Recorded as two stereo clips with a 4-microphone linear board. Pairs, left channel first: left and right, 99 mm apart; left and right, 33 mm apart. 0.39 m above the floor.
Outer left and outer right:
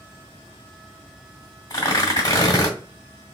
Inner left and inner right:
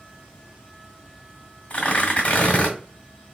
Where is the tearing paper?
35° left (ahead or behind), 1.7 m.